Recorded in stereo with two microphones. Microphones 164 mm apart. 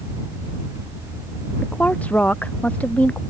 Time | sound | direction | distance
1.6 | a woman speaking | 10° left (ahead or behind) | ?